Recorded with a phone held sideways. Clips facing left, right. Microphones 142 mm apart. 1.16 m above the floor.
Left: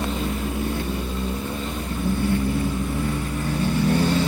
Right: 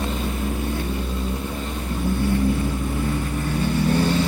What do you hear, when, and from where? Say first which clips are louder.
0.0 s a fan: even; 55° right (ahead or behind), 0.8 m